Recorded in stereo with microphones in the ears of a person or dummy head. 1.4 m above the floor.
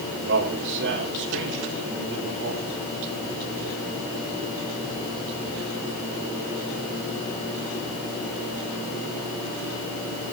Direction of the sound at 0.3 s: 70° right (ahead or behind).